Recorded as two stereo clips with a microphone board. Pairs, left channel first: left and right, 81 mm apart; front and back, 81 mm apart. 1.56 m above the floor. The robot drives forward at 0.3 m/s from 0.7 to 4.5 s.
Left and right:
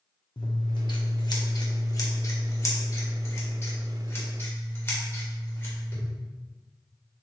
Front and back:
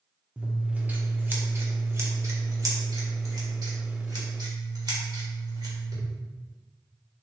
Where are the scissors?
110° left, 0.9 m; by 6.0 s 150° left, 1.6 m.